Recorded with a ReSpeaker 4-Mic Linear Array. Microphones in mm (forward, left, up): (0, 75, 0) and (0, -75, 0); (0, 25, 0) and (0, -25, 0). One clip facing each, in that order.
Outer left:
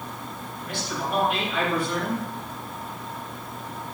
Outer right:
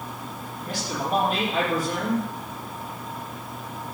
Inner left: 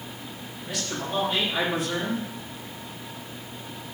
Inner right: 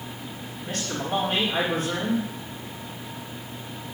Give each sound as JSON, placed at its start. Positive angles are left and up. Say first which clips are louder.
{"t": 0.6, "sound": "a man speaking", "louder": "outer right 1 dB, inner right 1 dB", "side_deg": -40, "distance_m": 8.0}